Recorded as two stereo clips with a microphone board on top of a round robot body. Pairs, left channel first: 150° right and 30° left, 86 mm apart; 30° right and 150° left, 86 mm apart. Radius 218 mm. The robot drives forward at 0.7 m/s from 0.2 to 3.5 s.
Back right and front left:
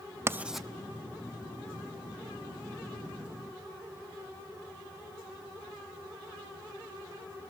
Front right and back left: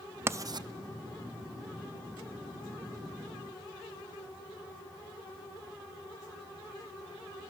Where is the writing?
90° left, 0.5 m; by 0.7 s 125° left, 0.6 m.